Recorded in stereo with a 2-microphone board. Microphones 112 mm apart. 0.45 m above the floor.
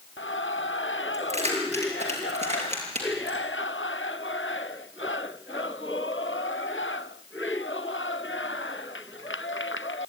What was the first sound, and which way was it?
Keys jangling, 70° right (ahead or behind).